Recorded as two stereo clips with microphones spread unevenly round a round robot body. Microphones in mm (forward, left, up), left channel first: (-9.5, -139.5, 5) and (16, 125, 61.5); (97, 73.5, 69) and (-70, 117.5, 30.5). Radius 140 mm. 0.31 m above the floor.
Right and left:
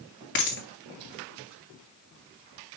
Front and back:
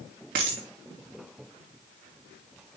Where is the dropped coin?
145° right, 2.5 m.